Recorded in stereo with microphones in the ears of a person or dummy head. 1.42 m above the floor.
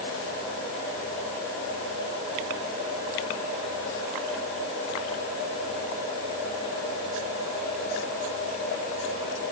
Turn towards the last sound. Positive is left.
No sound to turn to.